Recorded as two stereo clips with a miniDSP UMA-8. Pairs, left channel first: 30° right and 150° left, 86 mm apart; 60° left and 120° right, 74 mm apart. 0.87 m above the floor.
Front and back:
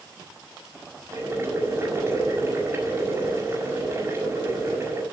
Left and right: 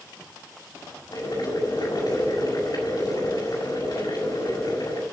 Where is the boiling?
90° left, 6 m.